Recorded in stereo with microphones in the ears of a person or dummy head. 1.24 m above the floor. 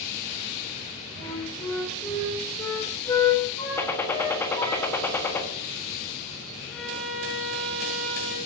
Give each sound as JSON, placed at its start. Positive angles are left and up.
{"t": 1.2, "sound": "a flute", "side_deg": 30, "distance_m": 4.5}
{"t": 3.8, "sound": "a gunshot", "side_deg": 20, "distance_m": 1.3}
{"t": 6.7, "sound": "a violin", "side_deg": 5, "distance_m": 3.5}